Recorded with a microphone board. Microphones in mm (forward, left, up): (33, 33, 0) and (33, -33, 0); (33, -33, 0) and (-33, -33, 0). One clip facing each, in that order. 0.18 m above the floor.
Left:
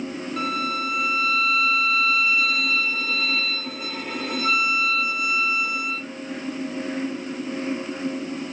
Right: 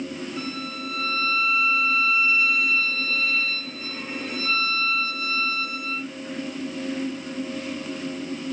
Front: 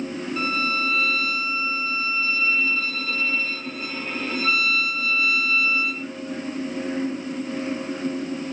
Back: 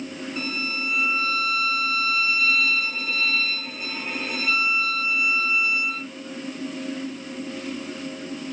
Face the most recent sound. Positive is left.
turn(degrees=100)